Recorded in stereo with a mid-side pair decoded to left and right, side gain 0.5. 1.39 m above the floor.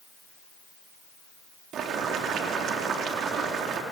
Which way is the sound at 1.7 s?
65° right.